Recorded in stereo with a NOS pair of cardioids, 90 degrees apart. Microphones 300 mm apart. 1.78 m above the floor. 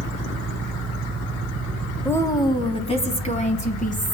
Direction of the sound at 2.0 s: 5° left.